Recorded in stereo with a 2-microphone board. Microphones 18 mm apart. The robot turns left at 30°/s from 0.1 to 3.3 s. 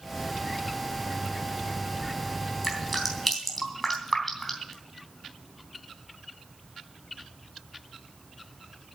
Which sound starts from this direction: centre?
Dripping, at 2.6 s.